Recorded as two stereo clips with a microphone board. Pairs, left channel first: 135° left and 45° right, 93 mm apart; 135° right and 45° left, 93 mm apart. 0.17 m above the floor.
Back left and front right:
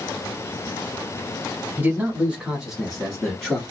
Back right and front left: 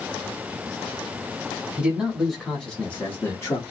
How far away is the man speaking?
About 1.2 m.